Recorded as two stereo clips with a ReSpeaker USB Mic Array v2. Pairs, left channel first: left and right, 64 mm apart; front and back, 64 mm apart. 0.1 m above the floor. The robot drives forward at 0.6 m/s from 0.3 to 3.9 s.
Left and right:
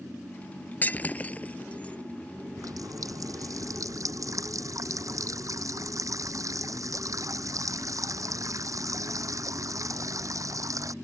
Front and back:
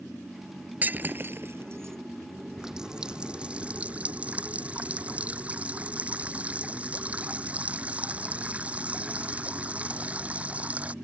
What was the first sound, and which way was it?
Breaking glass, 135° left.